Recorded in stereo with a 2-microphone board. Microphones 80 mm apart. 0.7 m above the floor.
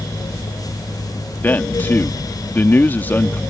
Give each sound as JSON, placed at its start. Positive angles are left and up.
{"t": 1.4, "sound": "a man speaking", "side_deg": 25}